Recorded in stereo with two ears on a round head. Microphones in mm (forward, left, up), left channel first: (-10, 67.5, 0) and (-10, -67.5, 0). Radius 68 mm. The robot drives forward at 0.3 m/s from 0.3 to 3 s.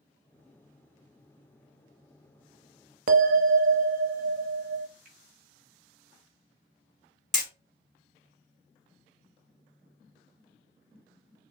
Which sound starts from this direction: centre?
Hammering, at 7.3 s.